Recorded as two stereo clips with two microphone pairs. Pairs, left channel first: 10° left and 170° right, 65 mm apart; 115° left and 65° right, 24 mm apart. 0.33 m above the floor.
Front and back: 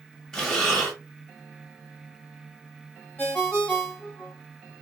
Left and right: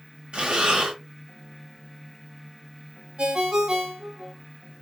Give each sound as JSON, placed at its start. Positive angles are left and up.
{"t": 0.3, "sound": "breathing", "azimuth_deg": -70, "distance_m": 1.1}
{"t": 3.2, "sound": "a ringtone", "azimuth_deg": -50, "distance_m": 1.1}